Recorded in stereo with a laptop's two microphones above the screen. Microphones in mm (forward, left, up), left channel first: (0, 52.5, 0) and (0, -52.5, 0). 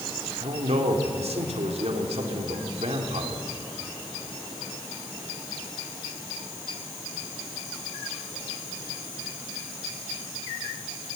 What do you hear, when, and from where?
0.4 s a man speaking: 80° right, 3 m